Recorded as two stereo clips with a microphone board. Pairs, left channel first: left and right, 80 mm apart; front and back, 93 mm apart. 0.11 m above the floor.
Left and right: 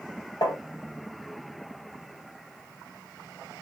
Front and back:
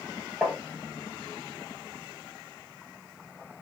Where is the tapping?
100° left, 1.4 m.